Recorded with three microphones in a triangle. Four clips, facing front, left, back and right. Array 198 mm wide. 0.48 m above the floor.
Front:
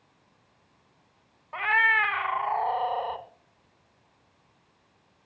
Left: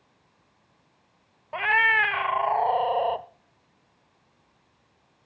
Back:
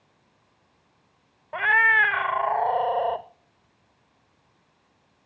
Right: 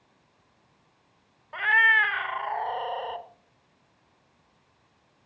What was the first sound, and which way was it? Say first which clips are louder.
A cat meowing: even, back 4 dB; 140° left.